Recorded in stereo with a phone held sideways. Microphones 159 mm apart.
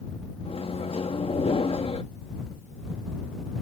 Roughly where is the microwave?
Left.